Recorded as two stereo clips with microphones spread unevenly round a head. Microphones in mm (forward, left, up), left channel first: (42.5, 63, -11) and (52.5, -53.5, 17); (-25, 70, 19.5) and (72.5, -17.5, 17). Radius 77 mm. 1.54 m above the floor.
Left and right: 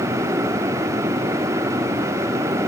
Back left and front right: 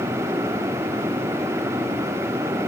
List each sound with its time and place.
Only background noise.